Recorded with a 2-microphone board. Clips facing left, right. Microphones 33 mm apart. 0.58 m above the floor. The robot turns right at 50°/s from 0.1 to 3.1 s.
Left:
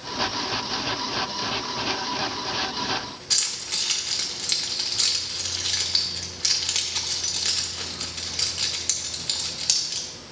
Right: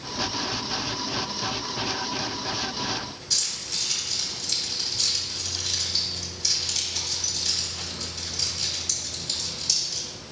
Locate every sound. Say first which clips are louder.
3.3 s keys jangling: left 2 dB; 65° left (ahead or behind), 1.1 m